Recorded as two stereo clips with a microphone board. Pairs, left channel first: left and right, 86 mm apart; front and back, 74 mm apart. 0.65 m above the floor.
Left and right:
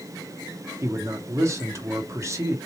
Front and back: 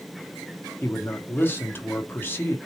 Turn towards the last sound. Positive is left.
turn(degrees=-50)